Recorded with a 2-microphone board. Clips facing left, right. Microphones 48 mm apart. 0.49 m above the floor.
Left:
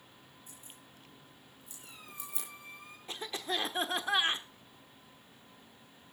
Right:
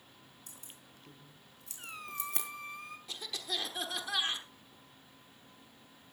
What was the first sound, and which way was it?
Keys jangling, 85° right.